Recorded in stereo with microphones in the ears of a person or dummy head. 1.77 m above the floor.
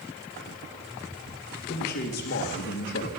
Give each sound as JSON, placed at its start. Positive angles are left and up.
{"t": 1.7, "sound": "a man speaking", "side_deg": 50, "distance_m": 1.9}